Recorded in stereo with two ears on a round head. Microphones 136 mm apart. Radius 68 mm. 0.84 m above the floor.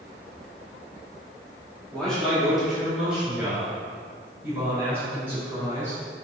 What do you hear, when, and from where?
1.9 s a man speaking: 5° left (ahead or behind), 1.8 m; by 6.0 s 15° right (ahead or behind), 6 m